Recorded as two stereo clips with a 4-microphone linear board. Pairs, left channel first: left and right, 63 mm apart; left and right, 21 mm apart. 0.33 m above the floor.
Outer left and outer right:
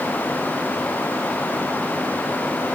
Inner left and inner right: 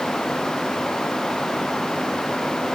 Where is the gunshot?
No gunshot in this recording.